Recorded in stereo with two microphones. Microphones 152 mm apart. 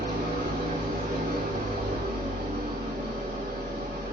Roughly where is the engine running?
Right.